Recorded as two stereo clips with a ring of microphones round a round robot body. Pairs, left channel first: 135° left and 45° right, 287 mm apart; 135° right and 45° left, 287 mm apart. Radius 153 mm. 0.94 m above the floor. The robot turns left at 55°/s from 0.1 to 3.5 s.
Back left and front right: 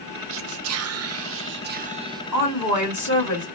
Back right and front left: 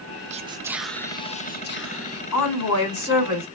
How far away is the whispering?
About 0.5 m.